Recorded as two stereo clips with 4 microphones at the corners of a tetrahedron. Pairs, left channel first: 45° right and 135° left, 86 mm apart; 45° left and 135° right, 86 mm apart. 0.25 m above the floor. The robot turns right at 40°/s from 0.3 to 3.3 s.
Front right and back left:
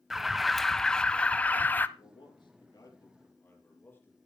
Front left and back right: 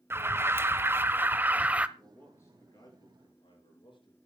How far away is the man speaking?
About 6 m.